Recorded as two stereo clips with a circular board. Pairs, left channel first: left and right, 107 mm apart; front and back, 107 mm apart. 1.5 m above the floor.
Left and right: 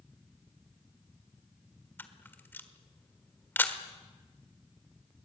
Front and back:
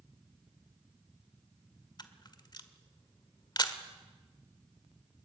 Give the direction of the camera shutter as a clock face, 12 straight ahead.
11 o'clock.